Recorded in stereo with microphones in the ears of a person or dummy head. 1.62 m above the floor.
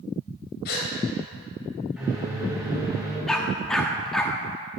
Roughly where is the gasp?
Left.